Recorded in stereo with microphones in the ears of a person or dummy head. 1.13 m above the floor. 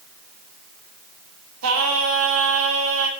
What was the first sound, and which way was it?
Singing, 85° right.